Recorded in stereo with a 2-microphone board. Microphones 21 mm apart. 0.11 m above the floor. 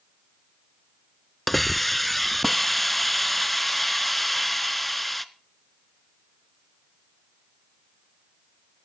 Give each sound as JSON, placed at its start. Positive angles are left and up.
{"t": 1.5, "sound": "a hiss", "side_deg": 5, "distance_m": 0.7}